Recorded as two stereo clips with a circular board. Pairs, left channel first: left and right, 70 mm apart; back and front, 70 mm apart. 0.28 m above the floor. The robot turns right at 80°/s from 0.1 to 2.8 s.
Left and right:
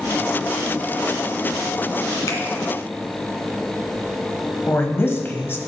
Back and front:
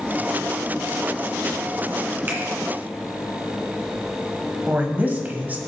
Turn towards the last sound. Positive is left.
turn(degrees=55)